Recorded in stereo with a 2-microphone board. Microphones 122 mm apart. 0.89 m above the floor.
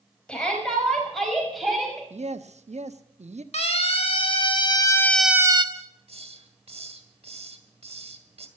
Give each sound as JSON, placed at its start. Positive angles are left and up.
{"t": 0.3, "sound": "a shout", "side_deg": 10, "distance_m": 5.0}
{"t": 2.1, "sound": "a man speaking", "side_deg": -70, "distance_m": 1.0}
{"t": 3.5, "sound": "a siren", "side_deg": 60, "distance_m": 3.0}
{"t": 5.8, "sound": "a hiss", "side_deg": -60, "distance_m": 1.7}